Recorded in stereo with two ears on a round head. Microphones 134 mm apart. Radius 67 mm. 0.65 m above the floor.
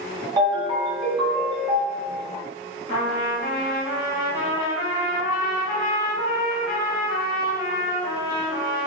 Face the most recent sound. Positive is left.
turn(degrees=55)  # may be behind; listen again after turning